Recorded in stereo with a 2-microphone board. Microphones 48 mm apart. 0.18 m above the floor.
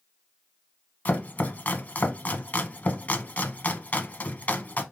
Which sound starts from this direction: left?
Chopping, at 1.1 s.